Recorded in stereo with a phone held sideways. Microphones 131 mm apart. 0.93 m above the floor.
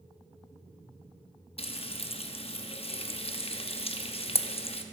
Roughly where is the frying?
Left.